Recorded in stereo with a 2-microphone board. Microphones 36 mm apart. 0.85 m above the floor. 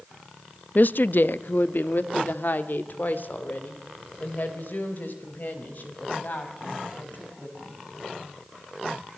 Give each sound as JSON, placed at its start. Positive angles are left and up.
{"t": 0.8, "sound": "a woman speaking", "side_deg": 55, "distance_m": 0.6}